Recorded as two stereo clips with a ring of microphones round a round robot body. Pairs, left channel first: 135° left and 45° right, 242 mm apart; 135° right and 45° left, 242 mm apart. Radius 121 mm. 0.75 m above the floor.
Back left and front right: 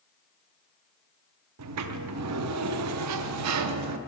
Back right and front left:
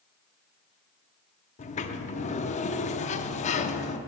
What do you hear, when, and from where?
1.6 s a sliding door: 70° right, 0.6 m